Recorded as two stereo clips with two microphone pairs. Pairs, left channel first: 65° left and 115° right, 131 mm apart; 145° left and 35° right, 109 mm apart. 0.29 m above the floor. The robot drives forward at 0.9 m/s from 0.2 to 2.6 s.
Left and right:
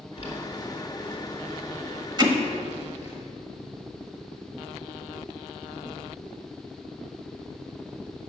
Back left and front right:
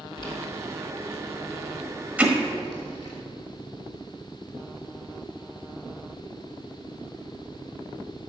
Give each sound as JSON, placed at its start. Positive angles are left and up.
{"t": 0.2, "sound": "boiling", "azimuth_deg": 100, "distance_m": 3.0}
{"t": 2.2, "sound": "hammering", "azimuth_deg": -105, "distance_m": 1.2}